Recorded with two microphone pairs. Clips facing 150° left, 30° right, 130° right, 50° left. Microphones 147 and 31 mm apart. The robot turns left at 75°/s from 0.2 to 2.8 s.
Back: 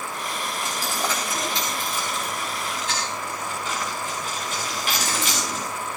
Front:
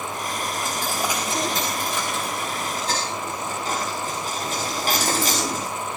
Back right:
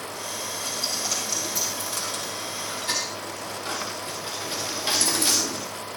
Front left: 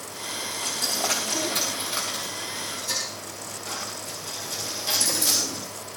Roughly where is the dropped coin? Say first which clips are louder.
Even, front left 3 dB; left.